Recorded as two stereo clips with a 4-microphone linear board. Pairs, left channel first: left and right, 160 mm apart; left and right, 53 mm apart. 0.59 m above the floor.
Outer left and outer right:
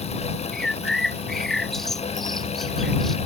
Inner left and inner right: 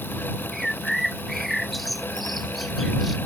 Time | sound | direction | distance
0.5 | a bird | centre (ahead or behind) | ?